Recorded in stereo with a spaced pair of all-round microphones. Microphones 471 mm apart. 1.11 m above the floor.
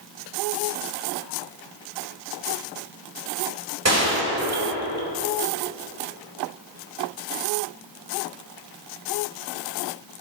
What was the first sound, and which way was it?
A gunshot, 35° right (ahead or behind).